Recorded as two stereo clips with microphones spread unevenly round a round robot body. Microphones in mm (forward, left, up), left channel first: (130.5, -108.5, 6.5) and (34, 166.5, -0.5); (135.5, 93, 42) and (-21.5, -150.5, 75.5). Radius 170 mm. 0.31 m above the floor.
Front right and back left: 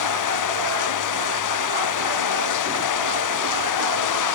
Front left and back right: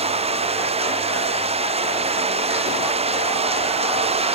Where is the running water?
55° right.